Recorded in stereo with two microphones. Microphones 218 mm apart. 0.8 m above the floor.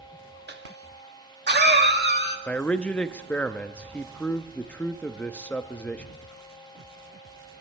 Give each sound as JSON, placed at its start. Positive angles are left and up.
{"t": 0.5, "sound": "a cough", "side_deg": -50, "distance_m": 1.8}
{"t": 2.5, "sound": "a man speaking", "side_deg": 5, "distance_m": 0.7}